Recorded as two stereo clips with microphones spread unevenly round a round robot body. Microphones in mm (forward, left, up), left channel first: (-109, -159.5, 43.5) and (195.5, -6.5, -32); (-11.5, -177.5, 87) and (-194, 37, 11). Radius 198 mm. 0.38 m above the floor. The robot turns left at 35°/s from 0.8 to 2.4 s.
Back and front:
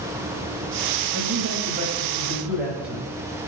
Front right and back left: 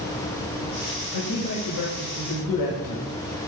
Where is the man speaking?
10° right, 1.9 m; by 3.1 s 55° right, 1.9 m.